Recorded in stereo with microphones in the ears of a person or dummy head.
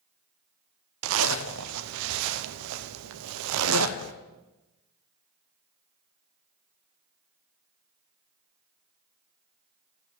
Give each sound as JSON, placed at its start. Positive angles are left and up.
{"t": 1.0, "sound": "a zipper", "side_deg": -80, "distance_m": 0.7}